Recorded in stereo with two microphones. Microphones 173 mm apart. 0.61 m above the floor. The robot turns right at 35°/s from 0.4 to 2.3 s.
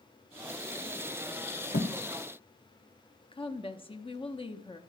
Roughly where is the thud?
Left.